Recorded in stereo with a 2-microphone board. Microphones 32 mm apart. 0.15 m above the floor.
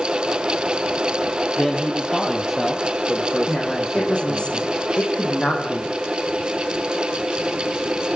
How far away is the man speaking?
About 3.5 m.